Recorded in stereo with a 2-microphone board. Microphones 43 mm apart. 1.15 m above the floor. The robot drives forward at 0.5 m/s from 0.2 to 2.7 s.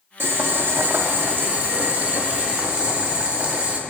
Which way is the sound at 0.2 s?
65° right (ahead or behind).